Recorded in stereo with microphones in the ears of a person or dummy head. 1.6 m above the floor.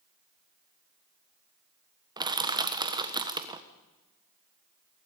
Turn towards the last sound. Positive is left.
turn(degrees=-20)  # may be behind; listen again after turning